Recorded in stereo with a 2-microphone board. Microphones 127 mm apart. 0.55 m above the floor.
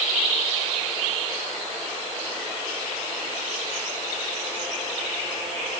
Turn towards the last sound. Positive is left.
No sound to turn to.